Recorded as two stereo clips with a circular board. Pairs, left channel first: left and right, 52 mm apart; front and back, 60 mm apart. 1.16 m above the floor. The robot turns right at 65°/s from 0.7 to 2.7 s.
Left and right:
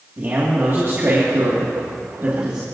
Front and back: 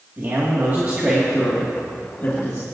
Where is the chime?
I don't hear a chime.